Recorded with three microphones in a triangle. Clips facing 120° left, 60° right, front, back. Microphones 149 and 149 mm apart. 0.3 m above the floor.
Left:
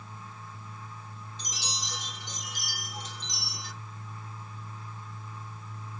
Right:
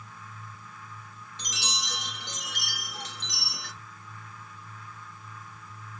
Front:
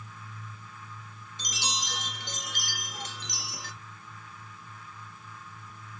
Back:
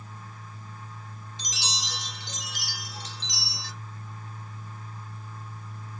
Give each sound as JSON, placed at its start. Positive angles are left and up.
{"t": 1.4, "sound": "a chime", "azimuth_deg": -40, "distance_m": 1.7}